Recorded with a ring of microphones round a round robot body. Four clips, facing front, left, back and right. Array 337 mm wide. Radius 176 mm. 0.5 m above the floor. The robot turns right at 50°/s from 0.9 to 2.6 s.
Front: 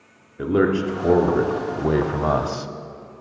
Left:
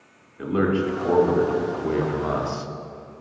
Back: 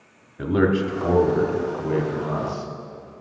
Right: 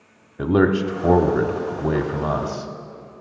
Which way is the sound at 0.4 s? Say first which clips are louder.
Right 4 dB, front 1 dB; 85° right.